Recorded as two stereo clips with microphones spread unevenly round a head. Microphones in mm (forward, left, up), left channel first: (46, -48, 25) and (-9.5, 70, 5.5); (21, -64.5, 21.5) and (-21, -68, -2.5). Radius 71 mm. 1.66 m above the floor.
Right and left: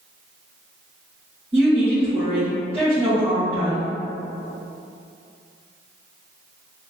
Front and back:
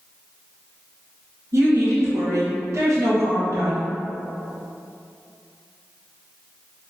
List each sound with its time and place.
1.5 s a woman speaking: 170° right, 1.4 m